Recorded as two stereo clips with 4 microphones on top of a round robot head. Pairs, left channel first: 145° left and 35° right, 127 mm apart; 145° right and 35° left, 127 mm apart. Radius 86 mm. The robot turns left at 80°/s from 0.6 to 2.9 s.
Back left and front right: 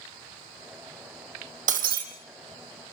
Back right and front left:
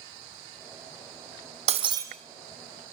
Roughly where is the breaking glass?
Ahead.